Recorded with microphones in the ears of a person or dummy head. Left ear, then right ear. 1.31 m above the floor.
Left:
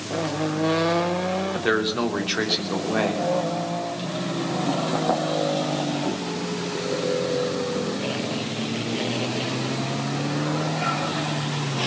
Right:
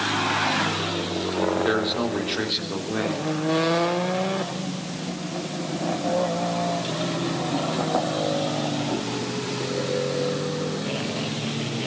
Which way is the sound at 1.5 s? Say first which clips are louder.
Even; 20° left (ahead or behind).